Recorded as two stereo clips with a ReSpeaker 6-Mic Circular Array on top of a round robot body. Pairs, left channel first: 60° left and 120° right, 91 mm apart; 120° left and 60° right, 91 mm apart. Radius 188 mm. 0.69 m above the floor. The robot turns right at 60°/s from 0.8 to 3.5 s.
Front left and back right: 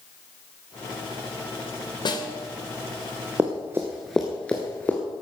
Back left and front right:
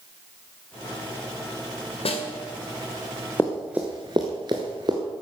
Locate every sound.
2.0 s a snare drum: 100° left, 2 m; by 2.3 s 115° left, 2 m
3.4 s running footsteps: straight behind, 0.6 m; by 5.0 s 15° right, 0.9 m